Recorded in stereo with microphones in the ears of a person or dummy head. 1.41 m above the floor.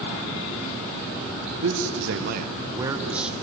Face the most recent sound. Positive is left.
turn(degrees=-5)  # may be behind; listen again after turning